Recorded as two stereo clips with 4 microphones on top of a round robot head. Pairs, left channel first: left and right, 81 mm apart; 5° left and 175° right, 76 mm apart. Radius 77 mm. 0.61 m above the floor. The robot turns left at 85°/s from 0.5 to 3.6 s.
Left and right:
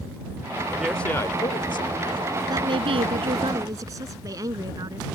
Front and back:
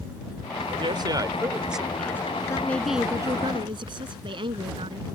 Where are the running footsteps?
No running footsteps in this recording.